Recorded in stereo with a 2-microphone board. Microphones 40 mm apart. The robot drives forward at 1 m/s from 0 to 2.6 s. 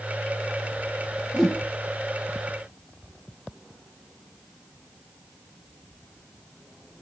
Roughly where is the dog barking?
No dog barking in this recording.